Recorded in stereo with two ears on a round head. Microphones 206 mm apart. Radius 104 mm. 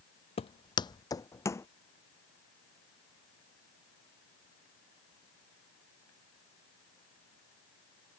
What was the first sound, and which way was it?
Footsteps, 25° left (ahead or behind).